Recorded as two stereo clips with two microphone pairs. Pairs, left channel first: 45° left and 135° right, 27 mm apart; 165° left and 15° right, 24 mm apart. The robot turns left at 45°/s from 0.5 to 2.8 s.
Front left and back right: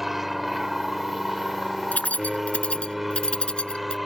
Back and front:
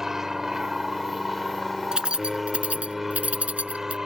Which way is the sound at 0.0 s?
60° right.